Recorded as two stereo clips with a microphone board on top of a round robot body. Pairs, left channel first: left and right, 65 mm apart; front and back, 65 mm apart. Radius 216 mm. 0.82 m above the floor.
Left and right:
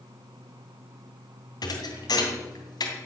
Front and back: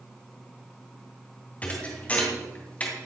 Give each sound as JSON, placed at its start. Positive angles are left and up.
{"t": 1.6, "sound": "a thud", "azimuth_deg": 70, "distance_m": 2.5}